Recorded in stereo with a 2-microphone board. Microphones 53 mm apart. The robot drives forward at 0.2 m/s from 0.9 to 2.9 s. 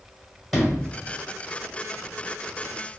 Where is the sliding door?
Centre (ahead or behind), 1.1 m.